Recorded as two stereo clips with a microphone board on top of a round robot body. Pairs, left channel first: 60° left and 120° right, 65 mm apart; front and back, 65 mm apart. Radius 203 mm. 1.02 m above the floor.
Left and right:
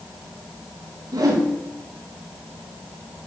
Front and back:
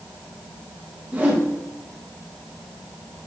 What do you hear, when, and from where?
1.1 s a whoosh: 110° right, 1.9 m